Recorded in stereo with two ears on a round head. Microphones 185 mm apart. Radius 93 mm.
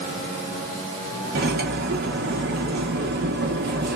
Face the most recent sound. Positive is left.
turn(degrees=-45)  # may be behind; listen again after turning